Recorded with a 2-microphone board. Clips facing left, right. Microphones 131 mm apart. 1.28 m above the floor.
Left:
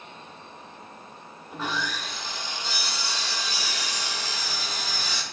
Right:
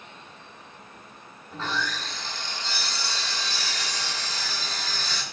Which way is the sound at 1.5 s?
15° left (ahead or behind).